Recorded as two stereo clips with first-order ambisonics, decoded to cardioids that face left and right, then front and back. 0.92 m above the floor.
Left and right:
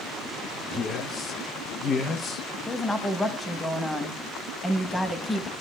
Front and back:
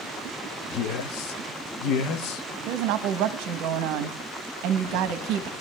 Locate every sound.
0.7 s a man speaking: 25° left, 0.7 m
2.7 s a woman speaking: 170° left, 0.8 m